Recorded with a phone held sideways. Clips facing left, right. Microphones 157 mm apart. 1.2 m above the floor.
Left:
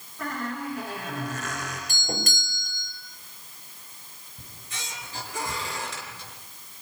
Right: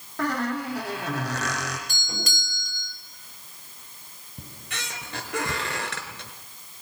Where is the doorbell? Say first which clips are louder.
Left 4 dB; 50° left (ahead or behind), 5.5 m.